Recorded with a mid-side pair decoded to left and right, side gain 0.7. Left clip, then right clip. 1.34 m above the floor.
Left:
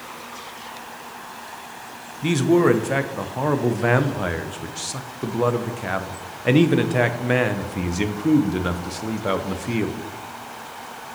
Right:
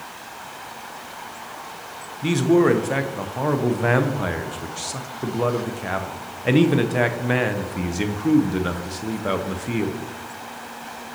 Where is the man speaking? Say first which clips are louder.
Even; 5° left, 0.7 m.